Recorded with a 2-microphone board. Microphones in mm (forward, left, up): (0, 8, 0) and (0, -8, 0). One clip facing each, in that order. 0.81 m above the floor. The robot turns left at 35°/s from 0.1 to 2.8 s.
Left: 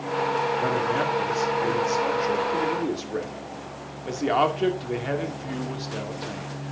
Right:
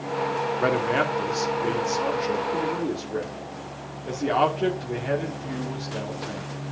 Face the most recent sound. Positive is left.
turn(degrees=160)